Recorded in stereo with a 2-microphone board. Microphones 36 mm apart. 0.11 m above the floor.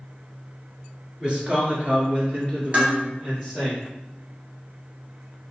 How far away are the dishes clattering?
About 1.2 m.